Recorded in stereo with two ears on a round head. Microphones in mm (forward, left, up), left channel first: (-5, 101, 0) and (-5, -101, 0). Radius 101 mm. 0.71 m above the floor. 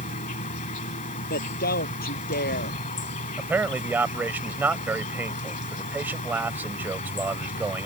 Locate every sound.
0.0 s an insect: 35° left (ahead or behind)
1.3 s a woman speaking: 45° left (ahead or behind)
3.4 s a man speaking: 10° right (ahead or behind)